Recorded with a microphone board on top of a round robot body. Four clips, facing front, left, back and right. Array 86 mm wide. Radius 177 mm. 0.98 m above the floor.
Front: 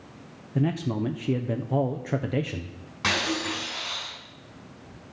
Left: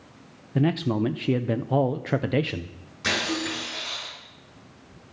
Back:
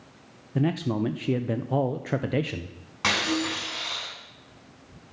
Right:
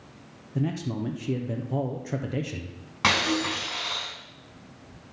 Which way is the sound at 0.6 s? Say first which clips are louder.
Left 6 dB, back 1 dB; 105° left.